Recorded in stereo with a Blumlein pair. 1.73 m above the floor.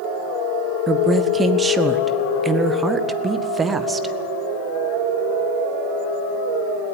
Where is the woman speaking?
15° right, 1.2 m.